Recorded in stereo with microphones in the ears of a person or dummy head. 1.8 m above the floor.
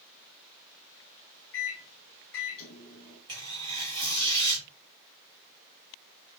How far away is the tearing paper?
About 1.7 m.